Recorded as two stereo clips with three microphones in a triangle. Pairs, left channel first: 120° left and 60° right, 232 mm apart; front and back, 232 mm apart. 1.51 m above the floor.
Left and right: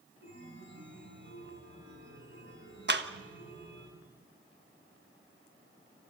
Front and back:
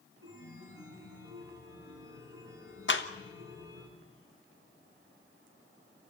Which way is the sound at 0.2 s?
20° right.